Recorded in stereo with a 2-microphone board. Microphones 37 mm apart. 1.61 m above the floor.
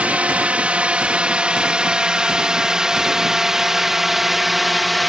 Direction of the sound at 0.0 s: 35° right (ahead or behind).